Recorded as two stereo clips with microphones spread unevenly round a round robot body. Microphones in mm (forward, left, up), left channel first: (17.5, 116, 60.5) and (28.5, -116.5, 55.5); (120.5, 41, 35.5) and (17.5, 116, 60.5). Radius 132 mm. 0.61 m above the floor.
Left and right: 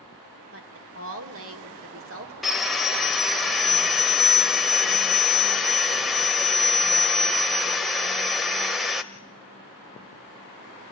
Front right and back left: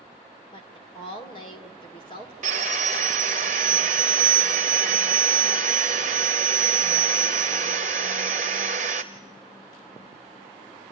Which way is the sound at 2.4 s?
Straight behind.